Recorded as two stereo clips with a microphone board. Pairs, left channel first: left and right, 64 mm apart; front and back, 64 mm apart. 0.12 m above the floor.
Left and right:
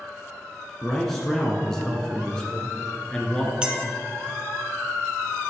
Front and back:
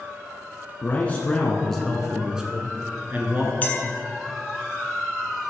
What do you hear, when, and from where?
0.8 s a man speaking: 5° left, 1.3 m; by 3.5 s 155° left, 1.4 m
3.6 s a clink: 30° right, 1.0 m